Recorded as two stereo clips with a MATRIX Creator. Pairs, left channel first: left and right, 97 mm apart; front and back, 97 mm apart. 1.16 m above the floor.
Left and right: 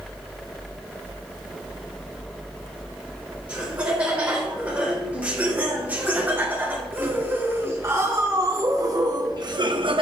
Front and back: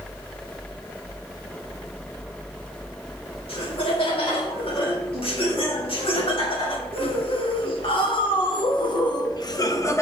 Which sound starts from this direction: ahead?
Laughter, at 3.5 s.